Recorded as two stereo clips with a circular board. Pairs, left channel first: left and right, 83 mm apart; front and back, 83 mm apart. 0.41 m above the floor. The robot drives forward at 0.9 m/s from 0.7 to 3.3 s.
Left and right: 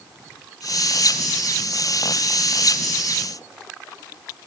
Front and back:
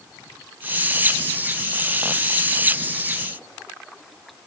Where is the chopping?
No chopping in this recording.